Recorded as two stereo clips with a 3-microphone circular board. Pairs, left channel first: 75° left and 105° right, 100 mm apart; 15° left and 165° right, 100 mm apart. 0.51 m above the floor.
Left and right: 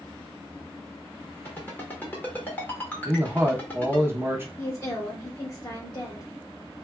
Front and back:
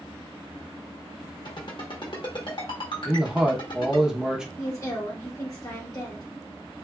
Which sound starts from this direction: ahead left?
A woman speaking, at 4.6 s.